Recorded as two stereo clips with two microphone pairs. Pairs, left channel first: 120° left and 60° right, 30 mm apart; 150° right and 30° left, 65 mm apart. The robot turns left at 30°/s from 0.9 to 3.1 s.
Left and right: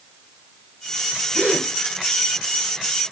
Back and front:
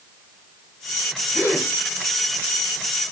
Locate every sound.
1.3 s a gasp: 80° left, 1.5 m; by 1.7 s 70° left, 1.5 m